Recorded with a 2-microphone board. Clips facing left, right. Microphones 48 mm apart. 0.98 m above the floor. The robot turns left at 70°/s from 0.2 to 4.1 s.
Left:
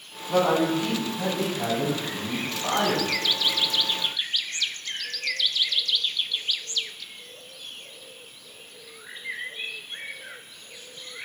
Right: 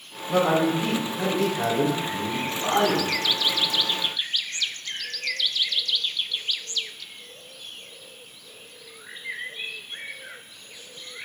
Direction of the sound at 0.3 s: 5° left.